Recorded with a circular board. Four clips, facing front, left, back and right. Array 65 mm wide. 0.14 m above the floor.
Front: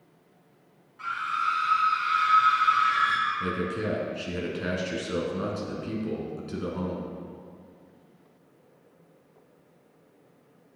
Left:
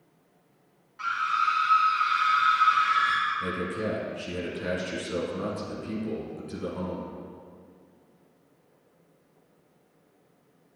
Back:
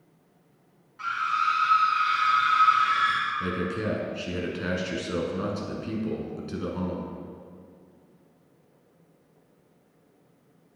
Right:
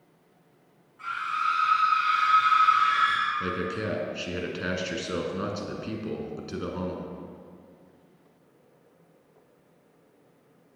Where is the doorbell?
No doorbell in this recording.